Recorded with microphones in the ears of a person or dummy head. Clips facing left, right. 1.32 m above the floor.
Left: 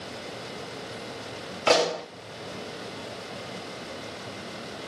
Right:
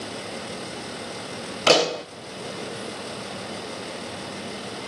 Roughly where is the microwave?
I don't hear a microwave.